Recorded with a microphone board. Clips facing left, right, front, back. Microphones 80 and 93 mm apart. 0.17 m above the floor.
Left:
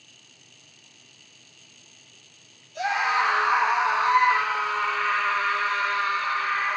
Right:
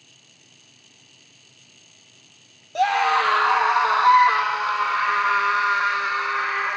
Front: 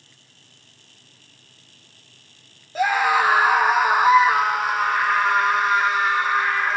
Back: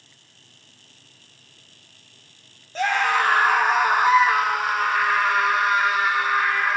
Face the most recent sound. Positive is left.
turn(degrees=-95)